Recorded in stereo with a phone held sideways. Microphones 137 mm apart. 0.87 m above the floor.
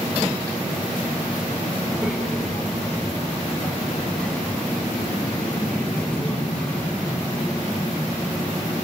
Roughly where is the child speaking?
Centre.